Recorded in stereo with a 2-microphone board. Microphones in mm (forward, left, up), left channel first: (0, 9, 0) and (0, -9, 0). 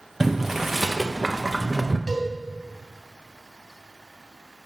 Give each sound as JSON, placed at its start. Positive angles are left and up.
{"t": 0.2, "sound": "boiling", "side_deg": -15, "distance_m": 1.1}
{"t": 2.1, "sound": "a cowbell", "side_deg": 35, "distance_m": 3.5}